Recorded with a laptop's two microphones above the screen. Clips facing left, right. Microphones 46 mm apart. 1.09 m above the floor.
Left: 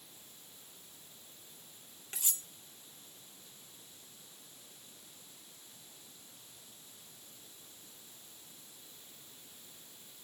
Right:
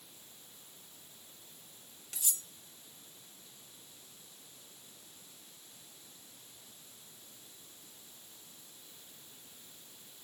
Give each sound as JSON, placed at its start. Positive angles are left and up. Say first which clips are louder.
{"t": 2.1, "sound": "cutlery clinking", "louder": "even", "side_deg": 30, "distance_m": 1.1}